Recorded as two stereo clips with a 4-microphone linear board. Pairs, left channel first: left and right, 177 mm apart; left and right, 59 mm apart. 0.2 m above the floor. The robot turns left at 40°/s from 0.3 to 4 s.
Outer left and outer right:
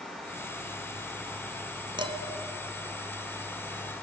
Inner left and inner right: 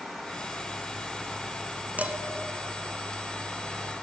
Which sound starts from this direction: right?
Dishes clattering, at 2.0 s.